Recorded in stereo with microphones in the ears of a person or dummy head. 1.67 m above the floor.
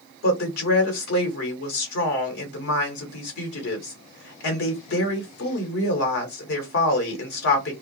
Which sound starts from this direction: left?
A woman speaking, at 0.2 s.